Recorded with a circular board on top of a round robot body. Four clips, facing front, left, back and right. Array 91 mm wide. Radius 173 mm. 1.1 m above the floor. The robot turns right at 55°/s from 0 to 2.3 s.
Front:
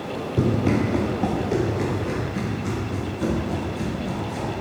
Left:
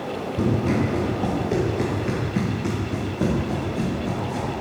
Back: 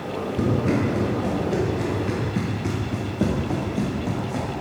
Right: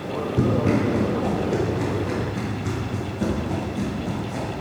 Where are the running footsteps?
40° right, 2 m; by 4.5 s 175° right, 2 m.